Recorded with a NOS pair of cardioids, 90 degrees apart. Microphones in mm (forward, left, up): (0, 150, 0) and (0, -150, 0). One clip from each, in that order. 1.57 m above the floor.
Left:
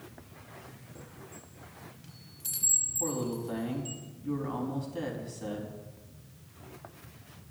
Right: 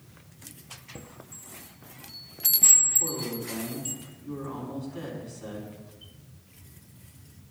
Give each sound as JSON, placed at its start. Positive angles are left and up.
{"t": 0.9, "sound": "a chime", "azimuth_deg": -55, "distance_m": 0.8}
{"t": 3.0, "sound": "a man speaking", "azimuth_deg": 40, "distance_m": 3.5}